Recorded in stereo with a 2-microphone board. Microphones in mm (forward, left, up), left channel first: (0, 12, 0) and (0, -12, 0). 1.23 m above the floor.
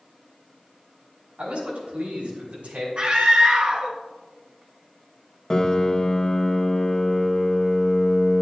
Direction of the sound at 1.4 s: 70° right (ahead or behind).